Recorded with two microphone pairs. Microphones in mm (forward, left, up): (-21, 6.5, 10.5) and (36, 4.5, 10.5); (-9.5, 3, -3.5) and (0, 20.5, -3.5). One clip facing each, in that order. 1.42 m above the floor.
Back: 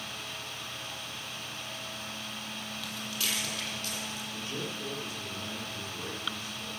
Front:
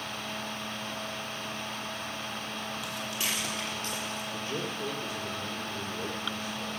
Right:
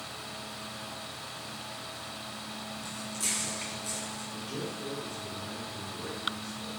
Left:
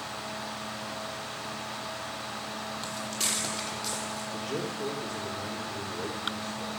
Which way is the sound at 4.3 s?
65° left.